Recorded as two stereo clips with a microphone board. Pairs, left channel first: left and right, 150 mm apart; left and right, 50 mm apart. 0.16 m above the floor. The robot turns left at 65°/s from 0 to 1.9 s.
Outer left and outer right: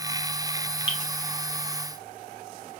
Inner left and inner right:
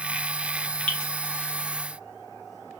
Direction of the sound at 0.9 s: 30° left (ahead or behind).